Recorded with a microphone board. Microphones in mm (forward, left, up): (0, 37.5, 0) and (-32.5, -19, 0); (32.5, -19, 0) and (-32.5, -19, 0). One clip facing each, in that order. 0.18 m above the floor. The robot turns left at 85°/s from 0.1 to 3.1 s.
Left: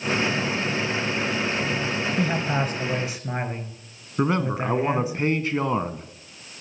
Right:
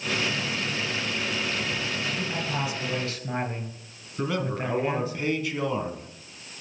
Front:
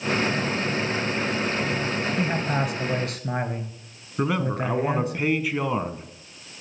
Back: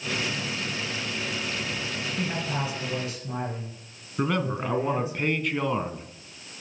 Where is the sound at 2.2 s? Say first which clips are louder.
Left 6 dB, front 3 dB; 65° left, 2.5 m; by 5.2 s 15° right, 2.5 m.